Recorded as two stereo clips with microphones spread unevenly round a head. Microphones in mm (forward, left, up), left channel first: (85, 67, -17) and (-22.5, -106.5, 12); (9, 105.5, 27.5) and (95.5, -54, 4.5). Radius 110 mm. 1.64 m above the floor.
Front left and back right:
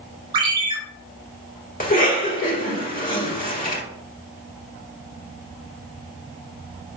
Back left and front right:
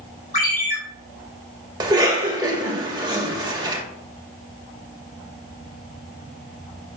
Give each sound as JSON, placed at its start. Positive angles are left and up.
{"t": 0.3, "sound": "a ringtone", "azimuth_deg": 175, "distance_m": 2.5}
{"t": 1.8, "sound": "a cough", "azimuth_deg": 5, "distance_m": 1.9}